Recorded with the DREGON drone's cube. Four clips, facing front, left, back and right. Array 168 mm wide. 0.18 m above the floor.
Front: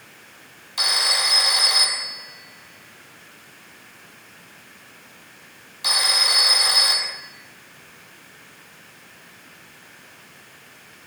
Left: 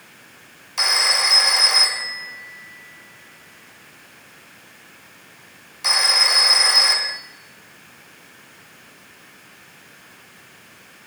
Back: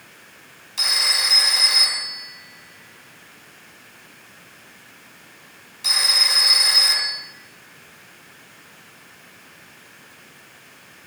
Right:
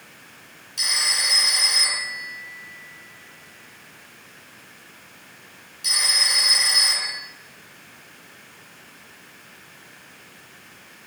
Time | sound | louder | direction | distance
0.8 | a phone ringing | left 7 dB, front 2 dB | 65° left | 3.5 m